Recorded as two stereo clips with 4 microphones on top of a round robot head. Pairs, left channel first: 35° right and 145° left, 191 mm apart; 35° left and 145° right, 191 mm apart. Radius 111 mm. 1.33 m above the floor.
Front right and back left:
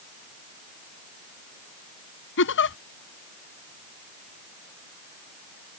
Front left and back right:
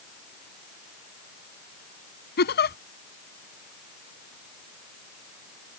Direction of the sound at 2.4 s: 5° right.